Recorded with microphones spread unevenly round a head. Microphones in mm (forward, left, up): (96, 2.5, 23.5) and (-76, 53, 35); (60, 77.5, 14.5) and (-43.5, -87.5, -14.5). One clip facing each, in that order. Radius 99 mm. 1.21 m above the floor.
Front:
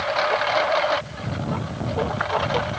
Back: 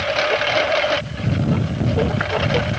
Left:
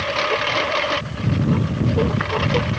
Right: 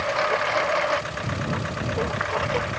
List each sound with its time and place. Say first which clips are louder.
0.0 s a lawn mower: back 3 dB, left 2 dB; 105° left; by 2.8 s 100° left